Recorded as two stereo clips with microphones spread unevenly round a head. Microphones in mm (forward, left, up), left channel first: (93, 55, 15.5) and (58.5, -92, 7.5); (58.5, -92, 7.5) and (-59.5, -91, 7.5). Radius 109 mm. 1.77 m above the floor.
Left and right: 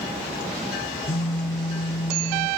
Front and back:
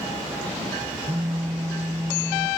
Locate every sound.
1.1 s a phone buzzing: 100° left, 0.9 m